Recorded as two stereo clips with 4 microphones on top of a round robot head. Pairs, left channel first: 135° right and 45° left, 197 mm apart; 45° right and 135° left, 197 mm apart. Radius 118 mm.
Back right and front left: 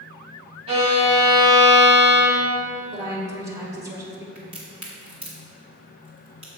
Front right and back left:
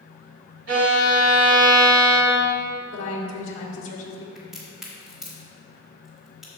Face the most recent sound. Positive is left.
turn(degrees=50)